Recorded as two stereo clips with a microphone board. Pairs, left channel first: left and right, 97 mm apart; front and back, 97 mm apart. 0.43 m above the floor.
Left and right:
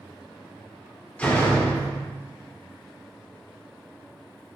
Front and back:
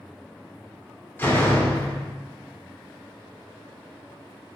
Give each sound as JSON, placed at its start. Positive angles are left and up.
{"t": 1.2, "sound": "a door slam", "azimuth_deg": 35, "distance_m": 0.5}